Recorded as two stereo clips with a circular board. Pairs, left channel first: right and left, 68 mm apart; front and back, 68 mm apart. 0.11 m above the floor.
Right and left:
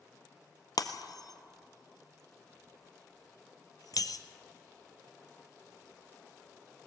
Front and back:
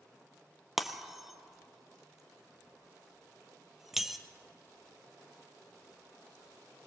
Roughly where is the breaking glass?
Right.